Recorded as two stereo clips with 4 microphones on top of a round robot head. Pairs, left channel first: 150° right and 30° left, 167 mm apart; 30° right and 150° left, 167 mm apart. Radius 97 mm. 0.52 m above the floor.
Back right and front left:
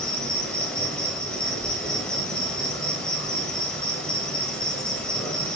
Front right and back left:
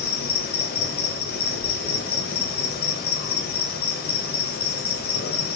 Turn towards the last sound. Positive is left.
turn(degrees=-65)